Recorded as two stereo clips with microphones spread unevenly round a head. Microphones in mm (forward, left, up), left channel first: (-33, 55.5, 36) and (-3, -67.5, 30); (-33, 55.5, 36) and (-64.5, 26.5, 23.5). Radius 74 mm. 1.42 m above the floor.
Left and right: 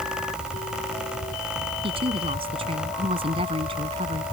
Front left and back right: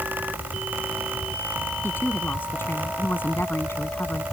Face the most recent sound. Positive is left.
turn(degrees=-25)